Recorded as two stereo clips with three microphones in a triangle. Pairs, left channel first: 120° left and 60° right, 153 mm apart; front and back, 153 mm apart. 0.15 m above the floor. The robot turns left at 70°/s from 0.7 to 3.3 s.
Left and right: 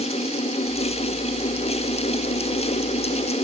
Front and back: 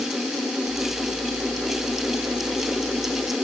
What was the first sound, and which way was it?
Only background noise.